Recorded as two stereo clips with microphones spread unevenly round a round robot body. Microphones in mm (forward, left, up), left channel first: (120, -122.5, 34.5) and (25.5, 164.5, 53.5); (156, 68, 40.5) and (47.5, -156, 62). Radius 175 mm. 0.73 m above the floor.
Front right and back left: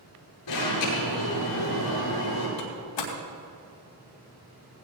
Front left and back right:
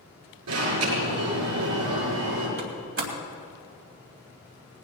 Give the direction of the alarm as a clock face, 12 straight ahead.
4 o'clock.